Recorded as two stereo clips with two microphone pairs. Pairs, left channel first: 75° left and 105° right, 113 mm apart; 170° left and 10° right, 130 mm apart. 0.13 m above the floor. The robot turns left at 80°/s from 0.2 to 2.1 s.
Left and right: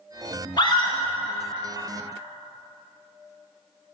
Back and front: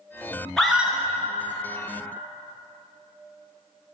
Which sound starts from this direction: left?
A scream, at 0.6 s.